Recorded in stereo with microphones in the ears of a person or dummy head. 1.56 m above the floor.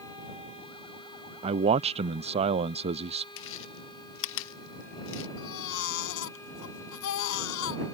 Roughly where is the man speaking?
Right.